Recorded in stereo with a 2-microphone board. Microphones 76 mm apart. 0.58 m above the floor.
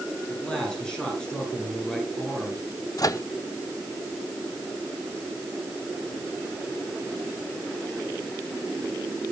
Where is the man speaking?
10° left (ahead or behind), 9 m.